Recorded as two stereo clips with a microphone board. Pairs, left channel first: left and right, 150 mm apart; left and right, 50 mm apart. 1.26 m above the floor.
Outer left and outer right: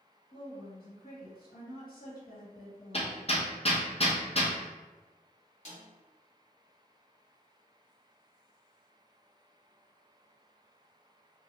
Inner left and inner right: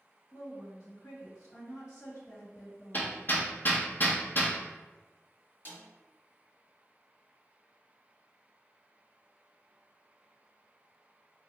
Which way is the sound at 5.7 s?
50° left (ahead or behind).